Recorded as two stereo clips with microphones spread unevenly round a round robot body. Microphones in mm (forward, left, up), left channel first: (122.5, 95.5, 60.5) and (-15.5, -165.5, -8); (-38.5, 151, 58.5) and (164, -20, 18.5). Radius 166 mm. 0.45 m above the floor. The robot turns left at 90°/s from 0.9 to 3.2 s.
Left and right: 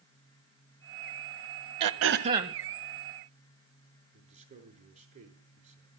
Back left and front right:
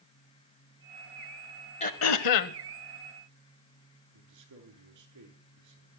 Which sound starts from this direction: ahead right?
A man speaking, at 4.1 s.